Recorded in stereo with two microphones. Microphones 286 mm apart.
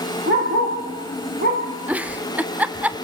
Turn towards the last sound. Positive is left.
turn(degrees=-5)  # may be behind; listen again after turning